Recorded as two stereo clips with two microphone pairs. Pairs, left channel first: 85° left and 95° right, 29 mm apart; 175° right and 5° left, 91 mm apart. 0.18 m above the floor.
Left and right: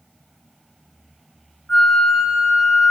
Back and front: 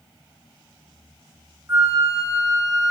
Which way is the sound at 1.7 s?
50° left.